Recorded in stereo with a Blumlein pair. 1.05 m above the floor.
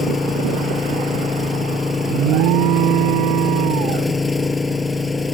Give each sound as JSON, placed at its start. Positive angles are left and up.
{"t": 0.0, "sound": "an engine running", "azimuth_deg": 10}
{"t": 2.1, "sound": "an alarm", "azimuth_deg": -40}